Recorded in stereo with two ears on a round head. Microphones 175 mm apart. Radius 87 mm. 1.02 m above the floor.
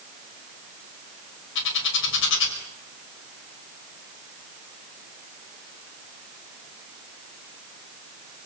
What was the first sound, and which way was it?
A bird, 65° left (ahead or behind).